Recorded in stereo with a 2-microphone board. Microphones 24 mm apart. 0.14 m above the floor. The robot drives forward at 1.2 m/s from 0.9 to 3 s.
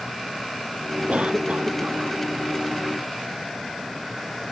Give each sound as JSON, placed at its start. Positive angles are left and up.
{"t": 1.1, "sound": "a cough", "side_deg": -65}